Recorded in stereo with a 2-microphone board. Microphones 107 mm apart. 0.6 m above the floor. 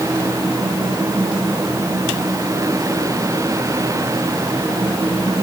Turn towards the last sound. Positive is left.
No sound to turn to.